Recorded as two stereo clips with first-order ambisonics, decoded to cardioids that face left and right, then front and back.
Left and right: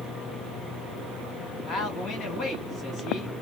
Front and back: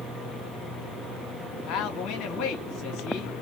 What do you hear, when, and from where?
1.7 s a man speaking: 30° left, 2 m